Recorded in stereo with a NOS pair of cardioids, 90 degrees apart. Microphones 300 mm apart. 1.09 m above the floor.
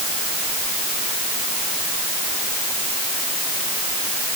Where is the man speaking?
I don't hear a man speaking.